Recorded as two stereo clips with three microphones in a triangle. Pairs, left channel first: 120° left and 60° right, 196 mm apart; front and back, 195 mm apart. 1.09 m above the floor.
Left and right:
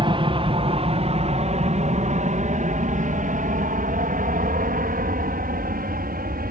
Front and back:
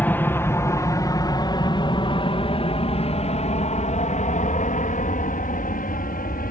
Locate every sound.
0.0 s an aircraft: 70° right; by 6.5 s 30° right